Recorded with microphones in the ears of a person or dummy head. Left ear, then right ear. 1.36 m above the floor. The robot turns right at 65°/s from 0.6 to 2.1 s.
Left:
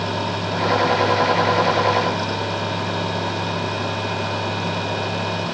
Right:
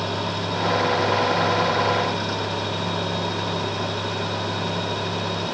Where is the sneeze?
I don't hear a sneeze.